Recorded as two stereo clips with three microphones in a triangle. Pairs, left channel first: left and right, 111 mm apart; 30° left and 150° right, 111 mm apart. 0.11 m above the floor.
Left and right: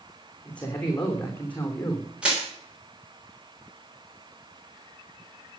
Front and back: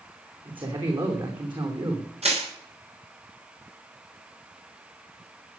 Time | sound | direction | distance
0.5 | a man speaking | 170° left | 6.5 m
2.2 | crushing | 170° right | 9.5 m